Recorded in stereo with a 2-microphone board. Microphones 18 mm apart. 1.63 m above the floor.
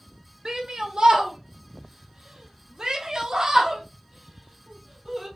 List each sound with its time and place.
0.5 s a shout: 65° right (ahead or behind), 1.5 m; by 5.3 s 20° right (ahead or behind), 3 m